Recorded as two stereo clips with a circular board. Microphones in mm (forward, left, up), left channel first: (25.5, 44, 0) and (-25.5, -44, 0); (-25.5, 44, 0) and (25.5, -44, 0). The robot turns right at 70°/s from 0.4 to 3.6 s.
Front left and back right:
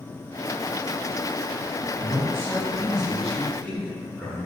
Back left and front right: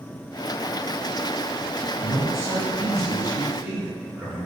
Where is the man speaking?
110° right, 0.9 m; by 4.5 s 5° left, 0.9 m.